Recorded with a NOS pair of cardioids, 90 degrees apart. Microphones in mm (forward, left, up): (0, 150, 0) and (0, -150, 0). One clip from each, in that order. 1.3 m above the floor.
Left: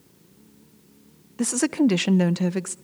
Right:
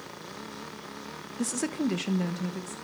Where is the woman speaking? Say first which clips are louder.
Left 9 dB; 25° left, 0.7 m; by 2.8 s 65° left, 1.4 m.